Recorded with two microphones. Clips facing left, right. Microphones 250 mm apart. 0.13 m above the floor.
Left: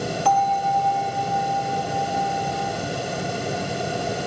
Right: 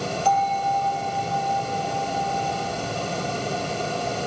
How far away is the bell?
About 3 m.